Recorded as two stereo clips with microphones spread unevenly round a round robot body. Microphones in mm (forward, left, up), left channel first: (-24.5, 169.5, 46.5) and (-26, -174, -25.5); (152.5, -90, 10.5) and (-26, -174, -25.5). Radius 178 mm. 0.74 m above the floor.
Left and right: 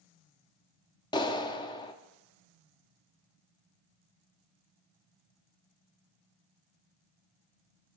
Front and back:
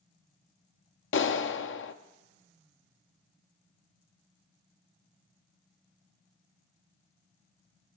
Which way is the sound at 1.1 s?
5° left.